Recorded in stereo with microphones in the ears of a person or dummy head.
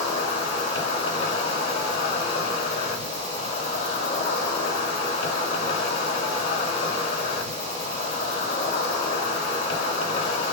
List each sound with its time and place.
0.0 s an insect: 35° left (ahead or behind), 2.5 m